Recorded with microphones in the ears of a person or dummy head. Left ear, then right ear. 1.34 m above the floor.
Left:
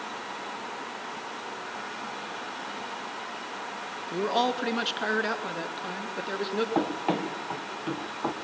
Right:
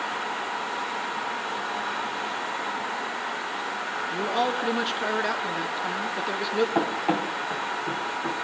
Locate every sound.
4.1 s a man speaking: 20° left (ahead or behind), 1.7 m; by 6.7 s 15° right (ahead or behind), 3 m
6.8 s running footsteps: 5° right (ahead or behind), 1.9 m; by 8.3 s 40° left (ahead or behind), 2 m